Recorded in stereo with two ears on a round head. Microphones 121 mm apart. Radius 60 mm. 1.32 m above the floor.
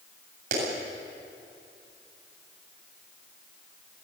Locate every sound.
0.5 s a clap: 70° right (ahead or behind), 8 m